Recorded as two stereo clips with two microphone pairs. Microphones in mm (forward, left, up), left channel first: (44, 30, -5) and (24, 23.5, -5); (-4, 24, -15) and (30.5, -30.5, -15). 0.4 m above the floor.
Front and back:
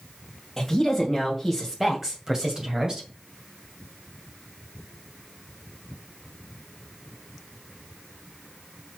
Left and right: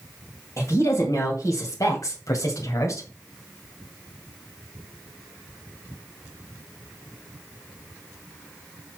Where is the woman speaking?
100° left, 2.5 m; by 3.1 s 150° left, 2 m.